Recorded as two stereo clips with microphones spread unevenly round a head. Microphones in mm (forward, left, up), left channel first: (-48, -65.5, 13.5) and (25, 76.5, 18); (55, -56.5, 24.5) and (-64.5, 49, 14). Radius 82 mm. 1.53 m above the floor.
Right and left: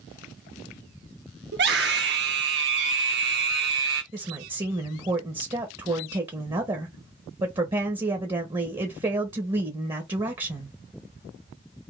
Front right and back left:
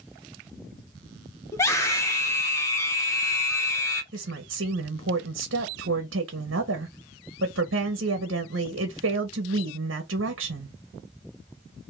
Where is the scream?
35° left, 1.6 m.